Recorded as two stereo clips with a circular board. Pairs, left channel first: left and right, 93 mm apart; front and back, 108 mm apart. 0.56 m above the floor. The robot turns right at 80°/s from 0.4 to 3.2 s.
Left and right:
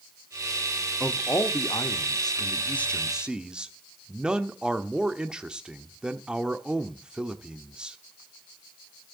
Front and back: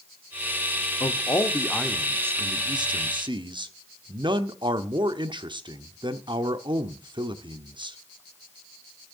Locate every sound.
1.0 s a man speaking: 15° left, 0.9 m; by 8.0 s 165° right, 0.9 m